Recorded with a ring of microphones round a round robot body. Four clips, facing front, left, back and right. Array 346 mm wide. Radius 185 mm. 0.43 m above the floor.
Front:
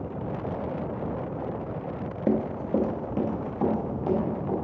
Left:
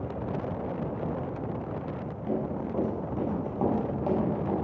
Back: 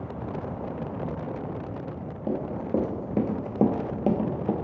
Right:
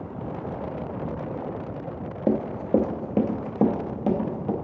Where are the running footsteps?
65° right, 0.5 m; by 4.5 s 150° right, 1.2 m.